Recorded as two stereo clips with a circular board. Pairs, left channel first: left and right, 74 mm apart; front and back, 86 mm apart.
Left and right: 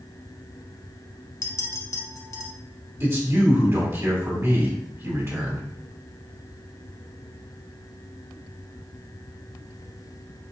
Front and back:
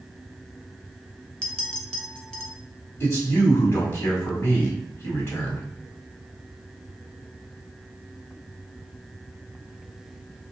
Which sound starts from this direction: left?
A clink, at 1.4 s.